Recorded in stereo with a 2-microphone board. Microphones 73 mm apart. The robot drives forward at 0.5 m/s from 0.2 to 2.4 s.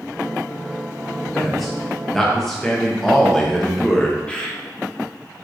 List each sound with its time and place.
1.3 s a man speaking: 5° left (ahead or behind), 2 m
4.3 s a bird: 15° left (ahead or behind), 1.3 m